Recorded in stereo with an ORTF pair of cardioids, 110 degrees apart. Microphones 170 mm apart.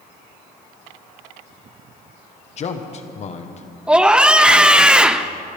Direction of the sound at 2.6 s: 40° left.